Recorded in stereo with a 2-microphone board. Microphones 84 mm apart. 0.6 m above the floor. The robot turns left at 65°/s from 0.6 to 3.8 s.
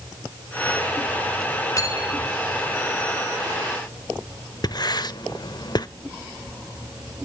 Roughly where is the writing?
Left.